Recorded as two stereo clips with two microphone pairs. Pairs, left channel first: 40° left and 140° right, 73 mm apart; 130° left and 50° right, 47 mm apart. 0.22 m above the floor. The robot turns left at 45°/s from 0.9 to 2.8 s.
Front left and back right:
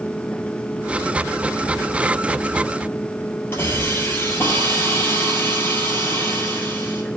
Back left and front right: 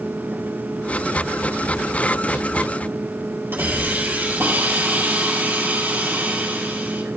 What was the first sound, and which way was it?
A hiss, 15° right.